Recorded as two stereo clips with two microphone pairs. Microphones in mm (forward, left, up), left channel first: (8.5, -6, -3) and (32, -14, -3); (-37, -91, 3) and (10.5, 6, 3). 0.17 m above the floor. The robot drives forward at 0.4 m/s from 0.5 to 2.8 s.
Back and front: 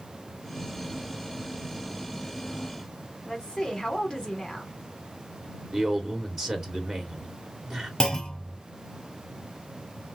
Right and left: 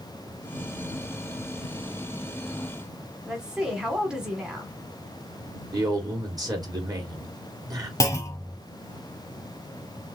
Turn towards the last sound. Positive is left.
turn(degrees=-150)